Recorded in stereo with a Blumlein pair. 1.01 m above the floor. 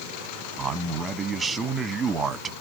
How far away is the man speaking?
About 0.8 m.